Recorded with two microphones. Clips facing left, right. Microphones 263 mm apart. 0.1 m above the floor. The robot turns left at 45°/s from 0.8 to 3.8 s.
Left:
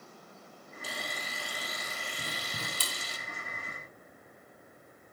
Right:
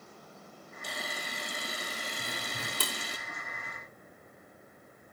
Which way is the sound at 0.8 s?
5° left (ahead or behind).